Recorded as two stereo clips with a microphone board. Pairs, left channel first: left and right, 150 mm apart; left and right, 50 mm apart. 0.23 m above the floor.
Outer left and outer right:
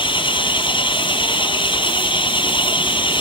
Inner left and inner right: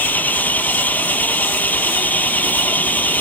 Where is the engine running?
35° left (ahead or behind).